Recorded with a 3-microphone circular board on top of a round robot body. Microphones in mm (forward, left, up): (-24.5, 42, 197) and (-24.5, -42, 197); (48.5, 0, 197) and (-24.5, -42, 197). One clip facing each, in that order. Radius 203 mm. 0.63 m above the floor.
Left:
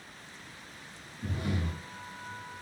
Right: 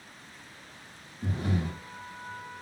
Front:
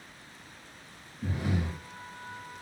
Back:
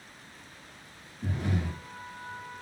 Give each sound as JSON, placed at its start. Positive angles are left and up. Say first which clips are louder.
{"t": 1.2, "sound": "breathing", "louder": "right 3 dB, even", "azimuth_deg": -50, "distance_m": 1.3}